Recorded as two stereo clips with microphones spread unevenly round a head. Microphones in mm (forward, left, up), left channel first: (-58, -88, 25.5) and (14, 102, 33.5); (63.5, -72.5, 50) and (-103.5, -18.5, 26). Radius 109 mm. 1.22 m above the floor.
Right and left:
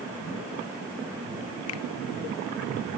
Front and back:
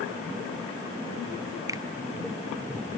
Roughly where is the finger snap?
Behind right.